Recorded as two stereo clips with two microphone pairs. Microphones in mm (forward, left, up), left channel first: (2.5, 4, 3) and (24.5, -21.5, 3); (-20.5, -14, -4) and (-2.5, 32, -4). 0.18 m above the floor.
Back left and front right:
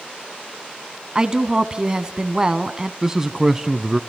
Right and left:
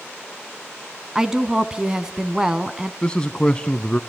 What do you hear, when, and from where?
1.1 s a woman speaking: straight ahead, 1.6 m
3.0 s a man speaking: 95° right, 1.1 m